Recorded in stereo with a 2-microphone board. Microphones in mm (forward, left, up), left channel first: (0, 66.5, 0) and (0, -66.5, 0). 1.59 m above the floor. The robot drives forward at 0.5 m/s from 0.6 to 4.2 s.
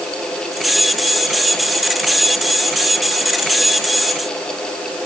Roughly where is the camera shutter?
I don't hear a camera shutter.